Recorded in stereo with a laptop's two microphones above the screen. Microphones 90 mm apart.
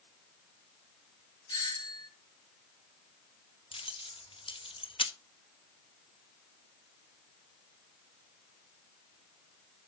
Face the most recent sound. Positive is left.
turn(degrees=75)  # may be behind; listen again after turning